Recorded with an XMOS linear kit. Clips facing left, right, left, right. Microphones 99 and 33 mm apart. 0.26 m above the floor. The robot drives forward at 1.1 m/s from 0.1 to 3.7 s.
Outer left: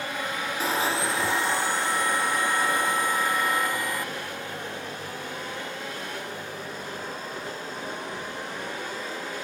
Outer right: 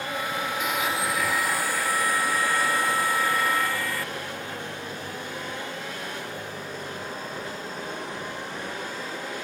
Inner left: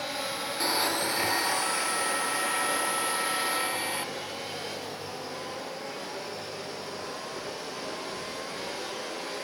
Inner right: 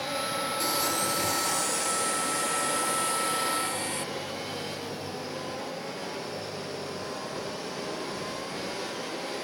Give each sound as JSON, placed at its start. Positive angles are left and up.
{"t": 0.6, "sound": "a blender", "side_deg": 30}